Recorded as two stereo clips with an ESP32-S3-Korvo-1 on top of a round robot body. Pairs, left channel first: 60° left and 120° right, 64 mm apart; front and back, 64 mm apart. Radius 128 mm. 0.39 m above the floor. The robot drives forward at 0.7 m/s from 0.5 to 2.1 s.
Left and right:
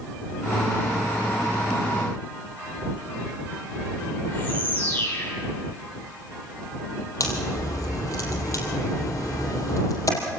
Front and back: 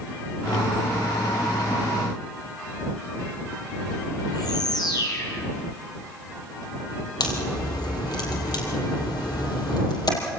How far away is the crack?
About 5 m.